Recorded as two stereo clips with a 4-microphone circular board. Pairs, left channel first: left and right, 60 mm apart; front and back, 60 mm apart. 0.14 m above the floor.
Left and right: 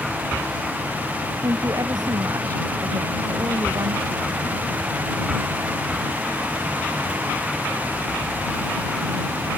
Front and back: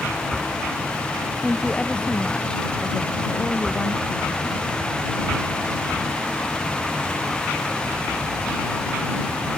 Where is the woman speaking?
75° right.